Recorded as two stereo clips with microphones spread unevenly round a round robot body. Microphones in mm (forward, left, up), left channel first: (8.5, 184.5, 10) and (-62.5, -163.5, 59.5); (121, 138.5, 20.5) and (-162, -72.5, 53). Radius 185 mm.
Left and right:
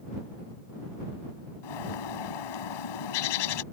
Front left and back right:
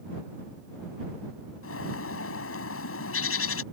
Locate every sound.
1.6 s a bird: 90° left